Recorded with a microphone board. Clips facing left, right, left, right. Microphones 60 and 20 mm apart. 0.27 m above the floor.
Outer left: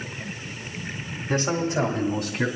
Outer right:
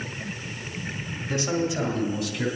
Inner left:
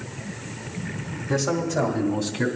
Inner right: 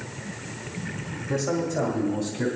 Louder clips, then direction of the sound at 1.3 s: Outer left 2 dB, inner left 2 dB; 30° left (ahead or behind).